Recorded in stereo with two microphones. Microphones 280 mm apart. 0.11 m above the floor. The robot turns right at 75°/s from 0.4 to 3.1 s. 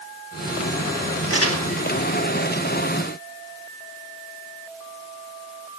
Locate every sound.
1.3 s crumpling: 50° left (ahead or behind), 1.6 m; by 1.6 s 60° left (ahead or behind), 1.6 m